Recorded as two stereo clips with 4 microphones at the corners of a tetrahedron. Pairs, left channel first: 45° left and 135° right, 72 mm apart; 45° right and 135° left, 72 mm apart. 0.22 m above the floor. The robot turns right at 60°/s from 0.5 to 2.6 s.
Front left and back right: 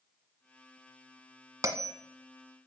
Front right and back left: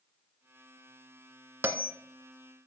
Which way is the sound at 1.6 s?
170° right.